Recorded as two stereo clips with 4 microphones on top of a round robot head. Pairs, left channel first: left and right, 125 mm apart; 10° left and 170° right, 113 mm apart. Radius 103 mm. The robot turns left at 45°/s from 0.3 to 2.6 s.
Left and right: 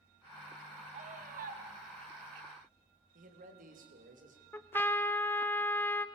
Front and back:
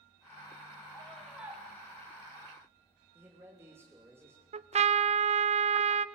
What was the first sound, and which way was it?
A scream, 65° right.